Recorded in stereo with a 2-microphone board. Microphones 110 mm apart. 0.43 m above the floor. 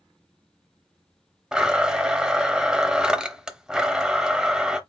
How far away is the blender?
About 0.7 m.